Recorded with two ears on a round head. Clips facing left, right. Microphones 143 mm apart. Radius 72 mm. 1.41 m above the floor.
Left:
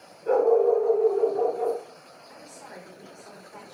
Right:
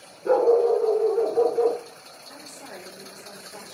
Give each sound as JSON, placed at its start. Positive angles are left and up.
{"t": 0.2, "sound": "a dog barking", "side_deg": -60, "distance_m": 6.0}
{"t": 2.3, "sound": "a woman speaking", "side_deg": -40, "distance_m": 5.5}